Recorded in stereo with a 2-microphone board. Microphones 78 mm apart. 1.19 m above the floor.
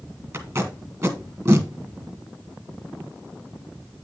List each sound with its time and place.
0.3 s tape being pulled: 40° right (ahead or behind), 1.6 m